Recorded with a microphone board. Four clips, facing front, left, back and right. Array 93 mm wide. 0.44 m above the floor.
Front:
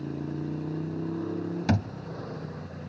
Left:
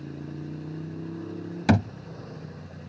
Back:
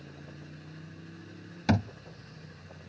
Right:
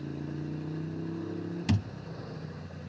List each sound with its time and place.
0.0 s a motorcycle: straight ahead; by 2.9 s 10° left
1.7 s a thud: 85° left